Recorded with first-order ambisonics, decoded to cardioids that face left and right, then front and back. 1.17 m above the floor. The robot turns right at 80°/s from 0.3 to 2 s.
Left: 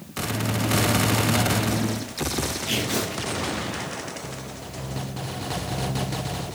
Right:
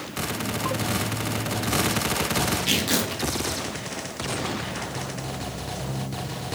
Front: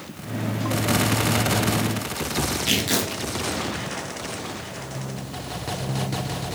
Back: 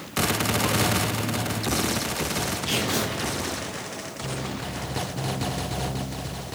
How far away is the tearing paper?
About 1.0 m.